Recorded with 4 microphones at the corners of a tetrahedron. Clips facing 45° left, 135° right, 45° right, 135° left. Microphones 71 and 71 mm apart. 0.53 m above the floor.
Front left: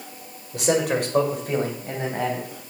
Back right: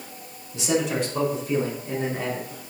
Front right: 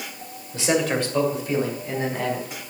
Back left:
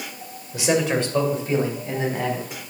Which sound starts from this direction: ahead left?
A man speaking, at 0.5 s.